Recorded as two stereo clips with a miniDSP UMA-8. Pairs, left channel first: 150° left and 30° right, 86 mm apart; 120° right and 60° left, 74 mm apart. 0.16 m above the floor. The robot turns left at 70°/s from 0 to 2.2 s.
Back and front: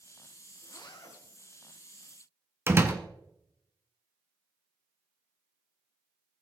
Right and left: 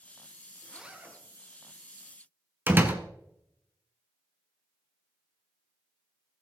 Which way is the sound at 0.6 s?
155° left.